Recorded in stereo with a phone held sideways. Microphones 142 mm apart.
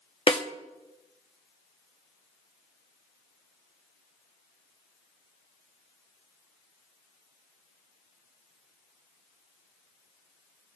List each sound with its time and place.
0.3 s a snare drum: 40° left (ahead or behind), 1.0 m